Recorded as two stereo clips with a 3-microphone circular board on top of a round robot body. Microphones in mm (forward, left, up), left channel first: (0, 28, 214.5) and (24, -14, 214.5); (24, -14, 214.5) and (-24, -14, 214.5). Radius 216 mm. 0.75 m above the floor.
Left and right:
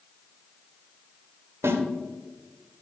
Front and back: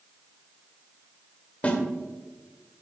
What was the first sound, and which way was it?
A snare drum, 60° right.